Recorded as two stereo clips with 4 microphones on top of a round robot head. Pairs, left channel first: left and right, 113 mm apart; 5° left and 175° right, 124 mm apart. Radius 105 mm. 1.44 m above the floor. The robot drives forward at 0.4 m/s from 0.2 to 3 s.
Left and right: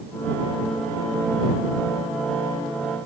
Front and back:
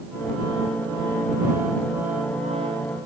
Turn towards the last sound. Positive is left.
No sound to turn to.